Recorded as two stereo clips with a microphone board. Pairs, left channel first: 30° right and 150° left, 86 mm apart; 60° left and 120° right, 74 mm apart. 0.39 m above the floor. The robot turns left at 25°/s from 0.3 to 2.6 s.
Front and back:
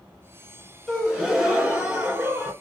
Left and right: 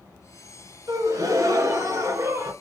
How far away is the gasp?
About 2 m.